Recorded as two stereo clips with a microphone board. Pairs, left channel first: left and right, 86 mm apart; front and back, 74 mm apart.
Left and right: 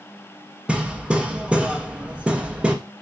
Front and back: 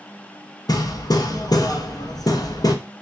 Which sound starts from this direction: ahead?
Hammering, at 0.7 s.